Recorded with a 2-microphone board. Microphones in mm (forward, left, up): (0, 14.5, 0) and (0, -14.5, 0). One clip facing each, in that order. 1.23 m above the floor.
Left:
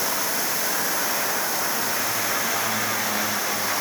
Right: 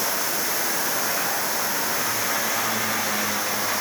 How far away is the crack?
I don't hear a crack.